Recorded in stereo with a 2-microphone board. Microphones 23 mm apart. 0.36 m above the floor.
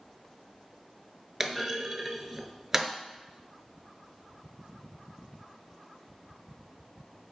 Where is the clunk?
25° right (ahead or behind), 0.8 m.